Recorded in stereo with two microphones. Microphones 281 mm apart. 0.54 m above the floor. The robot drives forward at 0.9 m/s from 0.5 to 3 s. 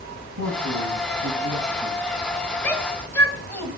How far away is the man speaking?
About 4 m.